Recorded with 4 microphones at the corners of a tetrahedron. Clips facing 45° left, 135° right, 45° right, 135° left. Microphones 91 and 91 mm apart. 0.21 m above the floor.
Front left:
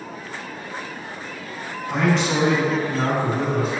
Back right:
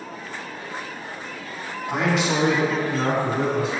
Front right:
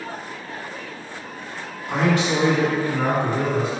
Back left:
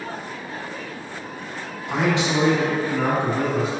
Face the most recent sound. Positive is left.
turn(degrees=75)